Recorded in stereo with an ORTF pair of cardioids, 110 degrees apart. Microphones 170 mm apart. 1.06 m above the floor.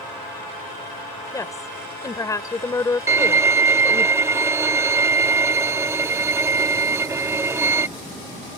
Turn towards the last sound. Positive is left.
turn(degrees=-15)